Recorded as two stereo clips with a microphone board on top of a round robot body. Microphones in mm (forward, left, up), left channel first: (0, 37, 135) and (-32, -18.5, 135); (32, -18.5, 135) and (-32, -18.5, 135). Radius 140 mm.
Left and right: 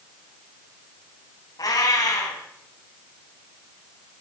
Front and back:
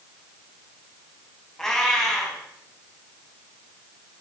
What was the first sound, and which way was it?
A cat meowing, 80° left.